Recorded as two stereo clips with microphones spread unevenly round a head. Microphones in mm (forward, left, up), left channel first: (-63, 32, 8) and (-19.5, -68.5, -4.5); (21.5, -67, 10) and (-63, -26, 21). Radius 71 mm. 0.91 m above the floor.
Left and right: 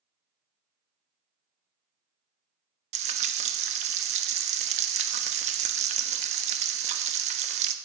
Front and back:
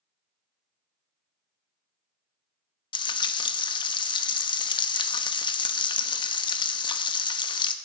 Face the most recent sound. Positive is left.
turn(degrees=-55)